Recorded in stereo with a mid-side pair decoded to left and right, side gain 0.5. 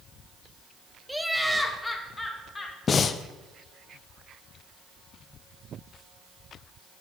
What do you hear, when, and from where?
1.1 s laughter: 5° right, 1.1 m; by 2.8 s 20° left, 3 m
2.9 s breathing: 45° left, 0.5 m